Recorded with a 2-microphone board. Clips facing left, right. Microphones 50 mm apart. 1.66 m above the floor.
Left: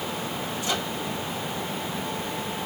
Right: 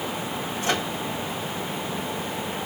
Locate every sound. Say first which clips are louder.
0.6 s a microwave: right 4 dB; 55° right (ahead or behind), 1.9 m